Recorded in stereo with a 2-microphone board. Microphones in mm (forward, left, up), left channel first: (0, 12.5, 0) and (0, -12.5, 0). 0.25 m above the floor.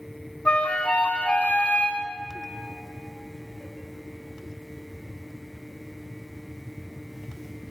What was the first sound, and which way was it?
A flute, 60° left (ahead or behind).